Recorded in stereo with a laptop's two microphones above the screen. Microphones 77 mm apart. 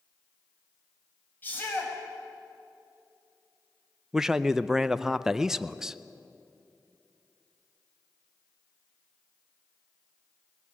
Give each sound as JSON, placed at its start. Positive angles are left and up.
{"t": 1.4, "sound": "a shout", "side_deg": 25, "distance_m": 6.5}
{"t": 4.1, "sound": "a man speaking", "side_deg": -5, "distance_m": 0.5}